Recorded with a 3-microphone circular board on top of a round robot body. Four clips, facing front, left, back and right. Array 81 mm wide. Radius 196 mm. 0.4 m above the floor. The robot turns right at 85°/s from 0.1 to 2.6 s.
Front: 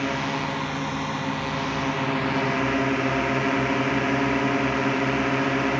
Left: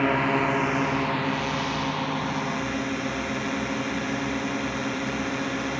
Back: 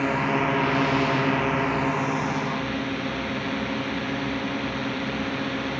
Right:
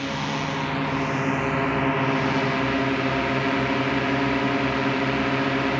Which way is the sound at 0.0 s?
105° left.